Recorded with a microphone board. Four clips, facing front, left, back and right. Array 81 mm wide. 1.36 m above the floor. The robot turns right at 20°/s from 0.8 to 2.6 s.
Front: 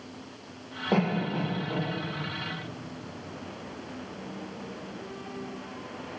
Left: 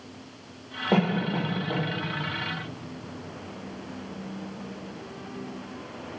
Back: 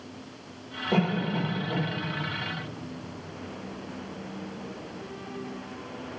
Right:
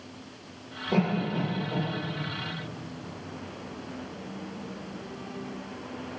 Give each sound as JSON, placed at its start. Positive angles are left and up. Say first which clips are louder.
{"t": 0.9, "sound": "a cough", "louder": "left 2 dB, even", "azimuth_deg": 65, "distance_m": 2.0}